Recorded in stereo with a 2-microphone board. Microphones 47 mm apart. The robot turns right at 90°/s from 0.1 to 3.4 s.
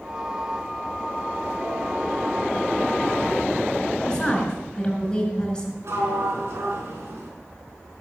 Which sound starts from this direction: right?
A sliding door, at 5.8 s.